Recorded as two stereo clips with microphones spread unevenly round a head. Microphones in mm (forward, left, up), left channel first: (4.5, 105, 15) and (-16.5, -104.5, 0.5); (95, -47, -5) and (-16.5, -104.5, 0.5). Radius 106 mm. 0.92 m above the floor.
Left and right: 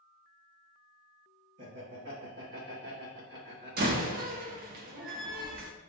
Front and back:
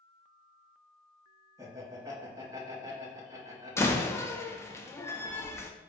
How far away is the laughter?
About 1.3 m.